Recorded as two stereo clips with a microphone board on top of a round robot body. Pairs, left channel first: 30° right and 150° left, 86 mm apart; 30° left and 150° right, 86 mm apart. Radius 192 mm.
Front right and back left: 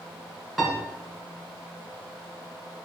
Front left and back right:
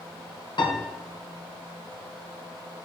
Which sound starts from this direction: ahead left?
A piano, at 0.6 s.